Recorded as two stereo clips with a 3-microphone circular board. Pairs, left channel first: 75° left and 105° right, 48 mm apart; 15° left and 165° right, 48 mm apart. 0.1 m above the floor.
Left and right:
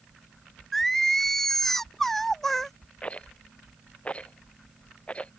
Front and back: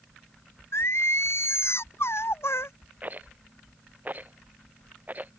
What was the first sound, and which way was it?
Singing, 10° right.